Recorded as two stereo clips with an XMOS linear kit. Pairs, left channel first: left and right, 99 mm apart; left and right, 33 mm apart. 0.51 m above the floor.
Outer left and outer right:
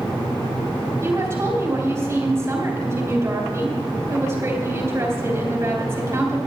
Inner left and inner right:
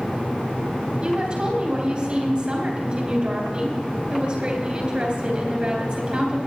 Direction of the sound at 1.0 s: 30° right (ahead or behind).